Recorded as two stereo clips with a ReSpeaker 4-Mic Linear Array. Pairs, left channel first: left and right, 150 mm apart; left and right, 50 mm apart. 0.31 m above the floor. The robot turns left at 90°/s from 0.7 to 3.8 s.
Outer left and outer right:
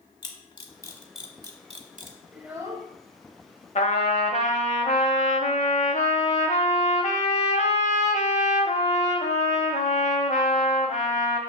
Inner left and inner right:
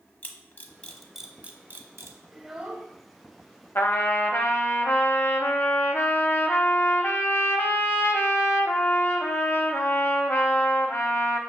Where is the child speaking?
Straight ahead, 0.8 m; by 2.9 s 50° right, 0.8 m.